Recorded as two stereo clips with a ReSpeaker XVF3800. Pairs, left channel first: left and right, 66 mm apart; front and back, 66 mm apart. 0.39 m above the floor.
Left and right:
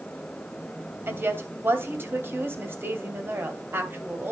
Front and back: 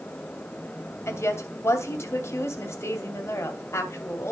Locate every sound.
1.1 s a woman speaking: 40° right, 2.5 m